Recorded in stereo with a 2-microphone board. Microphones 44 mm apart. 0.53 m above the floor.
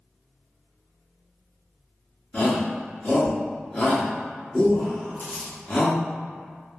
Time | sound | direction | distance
2.3 | a shout | 30° left (ahead or behind) | 0.9 m
5.2 | crumpling | 45° left (ahead or behind) | 1.6 m